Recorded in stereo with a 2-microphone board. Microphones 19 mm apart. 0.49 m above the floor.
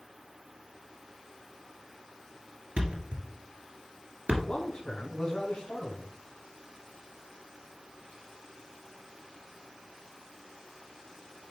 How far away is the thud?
About 1.9 m.